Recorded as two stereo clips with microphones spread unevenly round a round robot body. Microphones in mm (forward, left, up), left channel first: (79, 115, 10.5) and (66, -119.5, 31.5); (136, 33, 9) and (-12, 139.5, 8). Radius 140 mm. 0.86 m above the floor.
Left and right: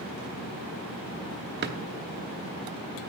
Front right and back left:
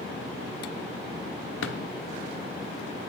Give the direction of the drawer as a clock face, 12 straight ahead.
2 o'clock.